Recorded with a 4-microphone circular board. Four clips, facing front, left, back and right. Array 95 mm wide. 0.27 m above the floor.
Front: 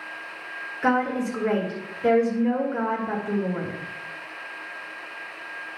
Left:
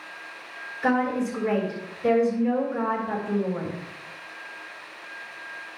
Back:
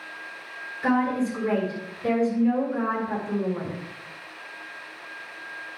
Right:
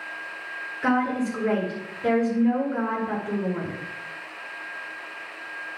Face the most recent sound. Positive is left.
turn(degrees=-25)